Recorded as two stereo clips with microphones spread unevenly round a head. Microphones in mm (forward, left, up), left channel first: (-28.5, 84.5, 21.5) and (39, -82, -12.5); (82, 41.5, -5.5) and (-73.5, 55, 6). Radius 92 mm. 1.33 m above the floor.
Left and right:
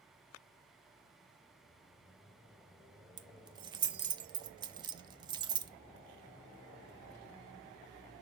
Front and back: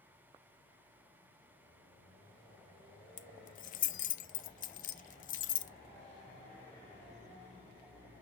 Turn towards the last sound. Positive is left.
turn(degrees=0)